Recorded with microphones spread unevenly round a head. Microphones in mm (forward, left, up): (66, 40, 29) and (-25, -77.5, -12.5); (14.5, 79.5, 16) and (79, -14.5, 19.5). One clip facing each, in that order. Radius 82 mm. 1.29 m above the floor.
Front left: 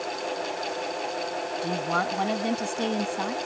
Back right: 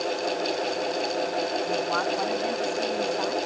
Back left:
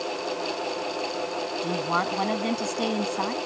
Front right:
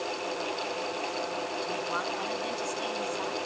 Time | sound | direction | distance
1.6 | a woman speaking | 100° left | ?